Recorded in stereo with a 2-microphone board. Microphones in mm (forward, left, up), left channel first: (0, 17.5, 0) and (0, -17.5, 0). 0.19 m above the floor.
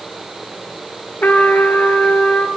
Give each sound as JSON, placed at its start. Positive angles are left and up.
{"t": 1.2, "sound": "a trumpet", "side_deg": 65, "distance_m": 0.9}